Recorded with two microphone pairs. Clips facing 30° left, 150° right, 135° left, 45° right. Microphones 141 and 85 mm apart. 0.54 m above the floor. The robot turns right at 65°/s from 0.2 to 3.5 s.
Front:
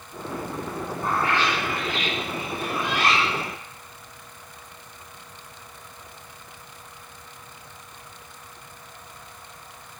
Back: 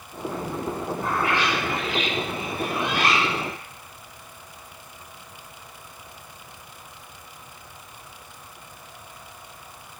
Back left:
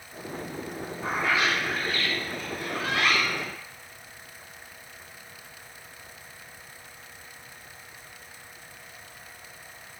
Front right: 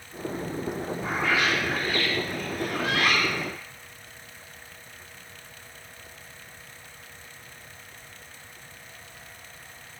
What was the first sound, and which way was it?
A bird, 110° left.